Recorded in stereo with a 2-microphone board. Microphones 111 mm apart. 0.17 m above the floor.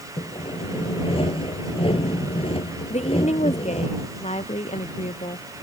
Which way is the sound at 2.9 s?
85° left.